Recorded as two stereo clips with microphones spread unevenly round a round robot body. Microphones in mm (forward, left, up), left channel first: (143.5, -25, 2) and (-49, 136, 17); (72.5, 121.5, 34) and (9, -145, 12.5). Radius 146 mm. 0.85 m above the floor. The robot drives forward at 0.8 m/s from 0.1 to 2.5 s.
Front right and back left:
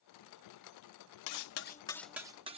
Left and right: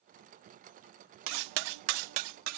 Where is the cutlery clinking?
65° right; by 2.6 s 145° right.